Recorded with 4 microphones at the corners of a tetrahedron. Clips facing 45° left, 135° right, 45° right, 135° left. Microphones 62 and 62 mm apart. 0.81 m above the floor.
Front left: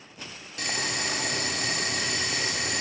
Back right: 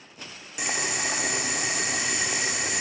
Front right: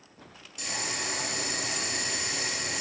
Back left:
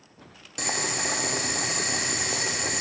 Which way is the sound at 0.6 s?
150° left.